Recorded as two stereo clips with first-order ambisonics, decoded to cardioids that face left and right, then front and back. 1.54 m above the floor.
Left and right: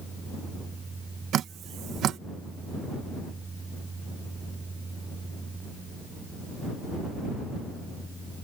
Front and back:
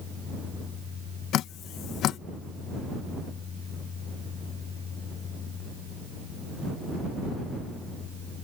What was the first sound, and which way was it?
Dripping, 40° right.